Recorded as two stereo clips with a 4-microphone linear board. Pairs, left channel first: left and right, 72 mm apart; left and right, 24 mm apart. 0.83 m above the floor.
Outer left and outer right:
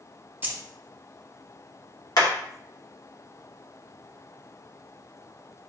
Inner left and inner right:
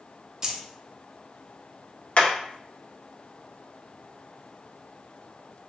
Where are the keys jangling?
25° right (ahead or behind), 0.7 m.